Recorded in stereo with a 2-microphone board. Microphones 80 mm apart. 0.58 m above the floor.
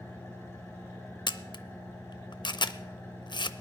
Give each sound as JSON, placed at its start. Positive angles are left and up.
{"t": 0.0, "sound": "an engine running", "side_deg": 35, "distance_m": 6.0}
{"t": 1.3, "sound": "a camera shutter", "side_deg": 70, "distance_m": 0.6}